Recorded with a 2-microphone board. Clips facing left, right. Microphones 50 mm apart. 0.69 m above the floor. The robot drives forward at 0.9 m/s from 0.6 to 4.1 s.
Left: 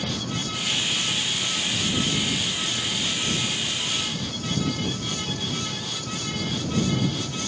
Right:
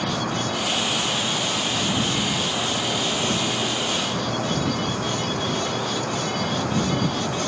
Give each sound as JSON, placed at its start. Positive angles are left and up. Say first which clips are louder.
{"t": 0.0, "sound": "an insect", "louder": "right 5 dB", "side_deg": -70}